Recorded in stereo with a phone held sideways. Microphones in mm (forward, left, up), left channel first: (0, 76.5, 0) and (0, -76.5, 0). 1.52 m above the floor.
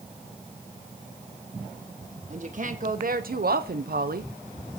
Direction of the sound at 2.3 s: 50° right (ahead or behind).